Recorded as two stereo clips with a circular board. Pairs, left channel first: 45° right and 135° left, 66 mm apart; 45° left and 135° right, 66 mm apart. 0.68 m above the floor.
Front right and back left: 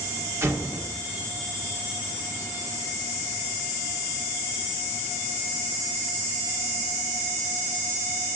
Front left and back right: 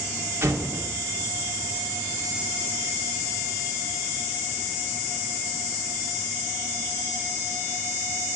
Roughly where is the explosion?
Behind.